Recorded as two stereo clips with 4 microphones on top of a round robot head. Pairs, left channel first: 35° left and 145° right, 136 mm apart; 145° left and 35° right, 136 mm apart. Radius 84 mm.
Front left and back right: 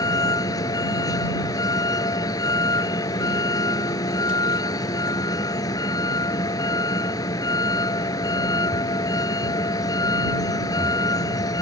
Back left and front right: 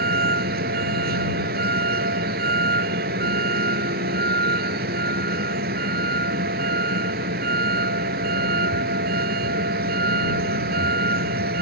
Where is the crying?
I don't hear crying.